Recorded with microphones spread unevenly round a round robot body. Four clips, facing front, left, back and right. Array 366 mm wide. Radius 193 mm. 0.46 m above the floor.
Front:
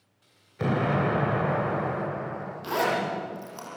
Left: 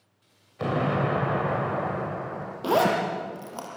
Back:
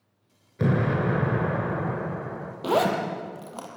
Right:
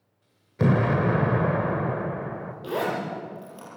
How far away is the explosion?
About 2.5 m.